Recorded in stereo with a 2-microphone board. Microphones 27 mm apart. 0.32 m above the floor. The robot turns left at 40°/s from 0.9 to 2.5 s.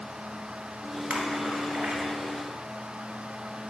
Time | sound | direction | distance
1.1 | a splash | 80° right | 1.2 m